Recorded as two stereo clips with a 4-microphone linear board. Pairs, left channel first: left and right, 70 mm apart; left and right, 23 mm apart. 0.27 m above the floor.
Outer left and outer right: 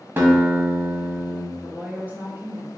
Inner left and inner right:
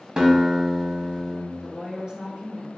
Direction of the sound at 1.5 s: 25° right (ahead or behind).